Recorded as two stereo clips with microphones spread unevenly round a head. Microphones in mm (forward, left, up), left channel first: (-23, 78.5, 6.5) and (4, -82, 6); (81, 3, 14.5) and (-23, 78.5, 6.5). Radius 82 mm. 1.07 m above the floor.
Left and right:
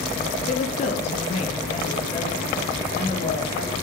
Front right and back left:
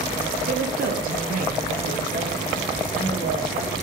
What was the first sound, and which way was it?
A woman speaking, 145° left.